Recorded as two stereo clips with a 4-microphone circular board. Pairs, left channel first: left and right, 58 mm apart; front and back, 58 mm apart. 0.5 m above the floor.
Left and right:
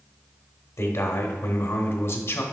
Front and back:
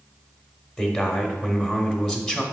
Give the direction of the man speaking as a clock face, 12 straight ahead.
9 o'clock.